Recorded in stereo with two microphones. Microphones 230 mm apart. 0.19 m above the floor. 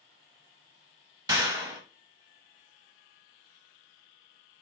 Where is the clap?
15° right (ahead or behind), 0.9 m.